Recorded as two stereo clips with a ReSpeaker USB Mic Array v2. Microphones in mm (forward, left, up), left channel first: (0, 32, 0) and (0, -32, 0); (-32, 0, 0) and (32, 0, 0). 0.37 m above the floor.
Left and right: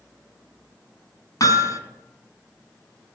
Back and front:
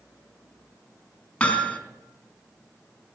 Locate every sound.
1.4 s hammering: 105° left, 3 m